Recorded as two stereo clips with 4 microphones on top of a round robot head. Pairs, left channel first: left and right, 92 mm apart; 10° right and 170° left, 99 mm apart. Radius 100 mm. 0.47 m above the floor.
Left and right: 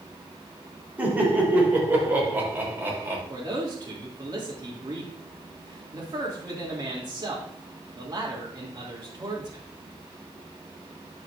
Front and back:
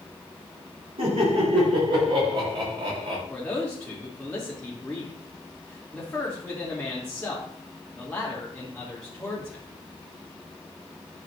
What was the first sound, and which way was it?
Laughter, 165° right.